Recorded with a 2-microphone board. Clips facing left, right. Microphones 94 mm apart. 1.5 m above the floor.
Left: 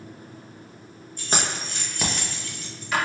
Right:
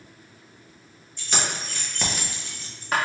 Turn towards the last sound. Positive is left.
turn(degrees=-45)  # may be behind; listen again after turning